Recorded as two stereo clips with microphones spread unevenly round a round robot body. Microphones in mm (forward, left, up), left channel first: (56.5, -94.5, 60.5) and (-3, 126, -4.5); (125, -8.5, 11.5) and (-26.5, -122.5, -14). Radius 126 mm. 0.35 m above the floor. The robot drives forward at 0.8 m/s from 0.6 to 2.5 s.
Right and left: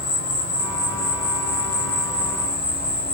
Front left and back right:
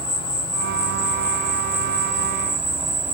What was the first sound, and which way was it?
An insect, 30° right.